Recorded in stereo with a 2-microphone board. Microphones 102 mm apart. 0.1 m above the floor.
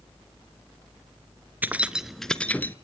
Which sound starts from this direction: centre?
Keys jangling, at 1.6 s.